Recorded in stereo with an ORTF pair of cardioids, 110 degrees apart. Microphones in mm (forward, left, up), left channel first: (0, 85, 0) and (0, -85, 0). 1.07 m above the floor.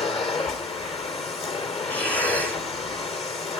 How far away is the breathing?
About 1.8 m.